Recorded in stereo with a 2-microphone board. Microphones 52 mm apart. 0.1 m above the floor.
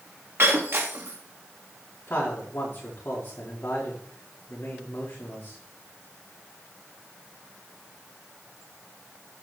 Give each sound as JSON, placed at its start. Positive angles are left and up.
{"t": 0.4, "sound": "breaking glass", "side_deg": -50, "distance_m": 3.5}
{"t": 2.1, "sound": "a man speaking", "side_deg": 40, "distance_m": 8.0}